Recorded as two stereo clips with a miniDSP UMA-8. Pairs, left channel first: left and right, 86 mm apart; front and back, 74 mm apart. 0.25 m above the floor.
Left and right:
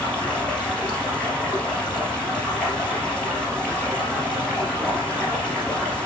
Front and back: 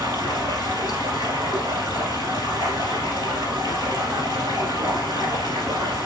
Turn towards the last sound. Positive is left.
turn(degrees=165)